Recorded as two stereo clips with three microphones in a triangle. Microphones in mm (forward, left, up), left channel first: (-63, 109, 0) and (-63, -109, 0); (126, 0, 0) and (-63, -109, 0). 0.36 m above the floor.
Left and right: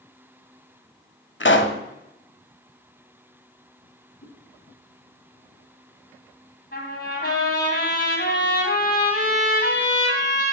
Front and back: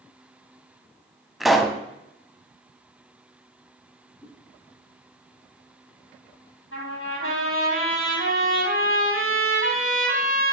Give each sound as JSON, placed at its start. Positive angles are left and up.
{"t": 1.4, "sound": "a pop", "azimuth_deg": 120, "distance_m": 0.8}
{"t": 4.2, "sound": "a whoosh", "azimuth_deg": 120, "distance_m": 4.5}
{"t": 6.7, "sound": "a trumpet", "azimuth_deg": 50, "distance_m": 3.5}